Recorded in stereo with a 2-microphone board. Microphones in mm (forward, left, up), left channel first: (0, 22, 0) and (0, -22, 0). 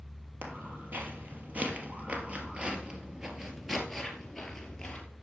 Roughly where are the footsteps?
Right.